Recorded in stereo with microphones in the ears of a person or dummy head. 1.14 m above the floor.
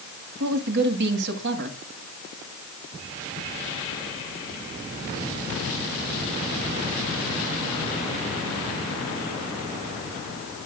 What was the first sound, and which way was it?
A woman speaking, 65° right (ahead or behind).